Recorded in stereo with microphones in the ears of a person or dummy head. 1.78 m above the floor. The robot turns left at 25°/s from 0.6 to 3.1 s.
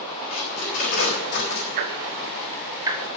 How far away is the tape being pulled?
About 4 m.